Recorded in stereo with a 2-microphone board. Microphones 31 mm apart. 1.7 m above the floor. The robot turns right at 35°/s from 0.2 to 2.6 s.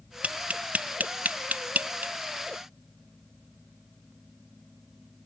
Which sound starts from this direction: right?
Tapping, at 0.2 s.